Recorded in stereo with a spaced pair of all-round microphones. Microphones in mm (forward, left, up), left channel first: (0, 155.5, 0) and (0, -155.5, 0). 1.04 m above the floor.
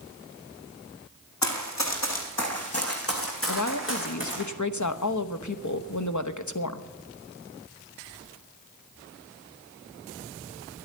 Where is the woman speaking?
65° left (ahead or behind), 0.9 m.